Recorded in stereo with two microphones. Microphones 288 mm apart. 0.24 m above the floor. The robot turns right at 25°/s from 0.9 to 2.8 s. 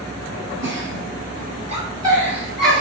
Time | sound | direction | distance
0.6 | a giggle | 40° right (ahead or behind) | 1.5 m